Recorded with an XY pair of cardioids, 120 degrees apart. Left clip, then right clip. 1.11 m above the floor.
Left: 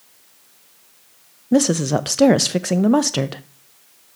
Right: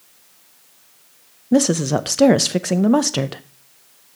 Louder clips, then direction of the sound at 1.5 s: Even; straight ahead.